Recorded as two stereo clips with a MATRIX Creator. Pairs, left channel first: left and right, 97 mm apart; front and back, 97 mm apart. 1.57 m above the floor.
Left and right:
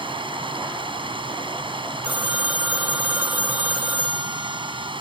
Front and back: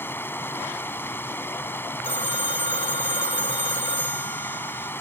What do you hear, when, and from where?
0.0 s running water: 65° right
2.0 s a phone ringing: 20° right